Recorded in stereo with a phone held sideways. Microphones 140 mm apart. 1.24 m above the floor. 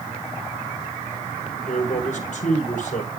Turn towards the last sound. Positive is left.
turn(degrees=60)  # may be behind; listen again after turning